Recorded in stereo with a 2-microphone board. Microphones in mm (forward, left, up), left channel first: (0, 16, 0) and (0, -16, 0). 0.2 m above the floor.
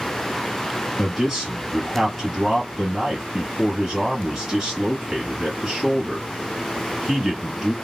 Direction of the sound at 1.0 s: 15° right (ahead or behind).